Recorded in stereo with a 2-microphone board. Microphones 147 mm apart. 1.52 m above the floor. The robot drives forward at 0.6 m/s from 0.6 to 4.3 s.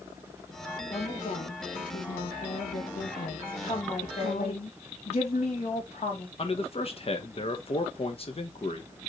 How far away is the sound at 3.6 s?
About 4 m.